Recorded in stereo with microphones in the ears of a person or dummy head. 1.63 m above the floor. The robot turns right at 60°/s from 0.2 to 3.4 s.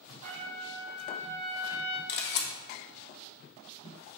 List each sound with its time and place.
0.2 s a trumpet: 50° right, 1.0 m; by 2.0 s 55° left, 1.0 m
2.1 s a camera shutter: 50° left (ahead or behind), 0.6 m; by 2.5 s 55° left (ahead or behind), 0.6 m